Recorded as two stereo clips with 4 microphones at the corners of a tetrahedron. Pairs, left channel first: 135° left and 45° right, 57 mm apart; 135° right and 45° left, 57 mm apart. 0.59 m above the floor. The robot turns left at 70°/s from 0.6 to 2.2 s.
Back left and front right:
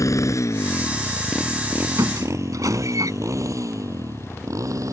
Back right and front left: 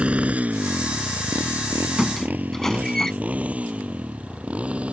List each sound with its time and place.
0.0 s a motorcycle: 115° left; by 4.9 s 25° right
2.0 s a squeak: 35° right; by 3.1 s 55° right